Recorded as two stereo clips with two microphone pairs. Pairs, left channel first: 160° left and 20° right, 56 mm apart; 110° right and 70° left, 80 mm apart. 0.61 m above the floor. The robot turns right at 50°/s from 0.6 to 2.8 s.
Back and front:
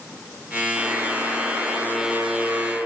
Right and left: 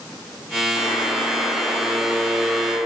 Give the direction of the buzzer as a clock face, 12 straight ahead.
3 o'clock.